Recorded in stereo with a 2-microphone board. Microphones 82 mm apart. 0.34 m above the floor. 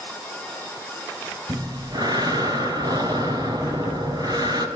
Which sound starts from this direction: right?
Breathing, at 1.5 s.